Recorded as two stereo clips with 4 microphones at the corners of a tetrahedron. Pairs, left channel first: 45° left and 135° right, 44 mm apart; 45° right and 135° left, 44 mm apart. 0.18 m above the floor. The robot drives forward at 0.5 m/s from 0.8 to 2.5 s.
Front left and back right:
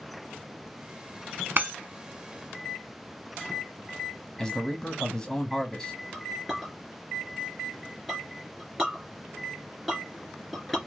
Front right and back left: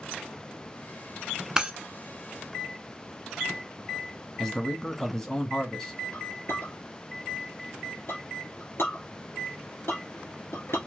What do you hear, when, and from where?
1.6 s breaking glass: 160° right, 0.7 m
4.4 s a man speaking: 5° left, 1.0 m
6.1 s a clink: 50° right, 1.5 m